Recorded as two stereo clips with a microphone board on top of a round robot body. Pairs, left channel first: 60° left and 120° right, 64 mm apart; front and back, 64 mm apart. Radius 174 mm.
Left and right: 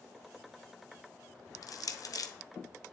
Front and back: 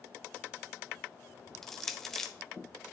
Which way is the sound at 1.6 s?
85° left.